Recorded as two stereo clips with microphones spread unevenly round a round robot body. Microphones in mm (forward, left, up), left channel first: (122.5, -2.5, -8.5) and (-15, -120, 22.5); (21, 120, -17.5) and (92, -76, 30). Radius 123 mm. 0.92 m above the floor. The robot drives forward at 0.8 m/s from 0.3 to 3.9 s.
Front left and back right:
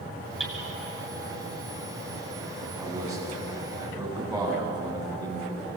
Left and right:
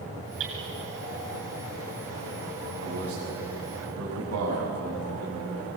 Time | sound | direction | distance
0.4 | hammering | 50° right | 9.5 m
2.8 | a man speaking | 55° right | 7.5 m